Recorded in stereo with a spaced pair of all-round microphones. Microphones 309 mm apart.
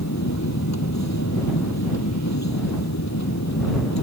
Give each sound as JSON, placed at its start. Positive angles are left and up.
{"t": 0.0, "sound": "a machine running", "side_deg": 60}